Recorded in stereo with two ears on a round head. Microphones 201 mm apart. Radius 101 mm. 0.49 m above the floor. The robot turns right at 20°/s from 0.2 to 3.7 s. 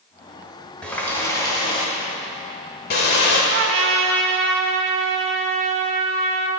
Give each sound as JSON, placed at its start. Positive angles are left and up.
{"t": 0.8, "sound": "a running tap", "azimuth_deg": 5, "distance_m": 1.2}
{"t": 3.5, "sound": "a trumpet", "side_deg": -55, "distance_m": 0.9}